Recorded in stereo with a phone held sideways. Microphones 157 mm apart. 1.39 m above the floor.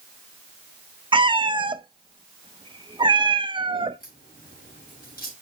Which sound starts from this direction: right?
A cat meowing, at 1.1 s.